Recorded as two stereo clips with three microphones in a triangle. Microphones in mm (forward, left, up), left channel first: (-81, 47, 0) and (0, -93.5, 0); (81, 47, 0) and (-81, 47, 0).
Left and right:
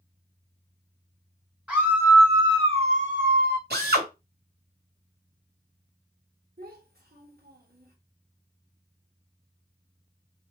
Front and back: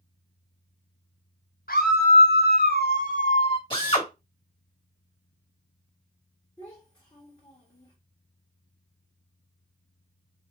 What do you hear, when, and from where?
1.7 s a scream: 20° left, 1.3 m; by 3.6 s 55° right, 0.8 m
3.7 s a drill: 60° right, 1.8 m
6.6 s a child speaking: 70° right, 1.4 m